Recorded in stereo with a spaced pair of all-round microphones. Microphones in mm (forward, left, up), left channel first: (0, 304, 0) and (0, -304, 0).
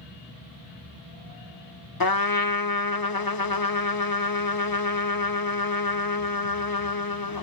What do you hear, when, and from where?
2.0 s a trumpet: 35° left (ahead or behind), 1.0 m